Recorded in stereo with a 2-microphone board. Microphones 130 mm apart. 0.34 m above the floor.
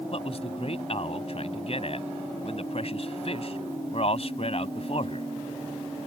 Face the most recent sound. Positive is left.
turn(degrees=55)  # may be behind; listen again after turning